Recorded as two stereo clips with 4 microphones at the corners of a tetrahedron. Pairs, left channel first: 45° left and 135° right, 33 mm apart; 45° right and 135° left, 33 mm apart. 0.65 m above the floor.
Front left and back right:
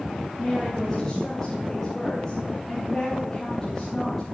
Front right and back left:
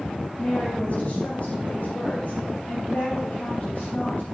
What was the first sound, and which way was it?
A woman speaking, 30° right.